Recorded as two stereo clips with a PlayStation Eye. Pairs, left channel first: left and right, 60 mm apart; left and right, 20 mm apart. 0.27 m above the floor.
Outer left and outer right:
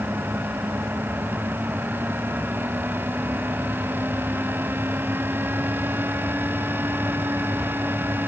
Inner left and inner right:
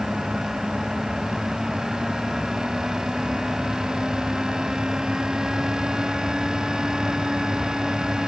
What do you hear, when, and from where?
Only background noise.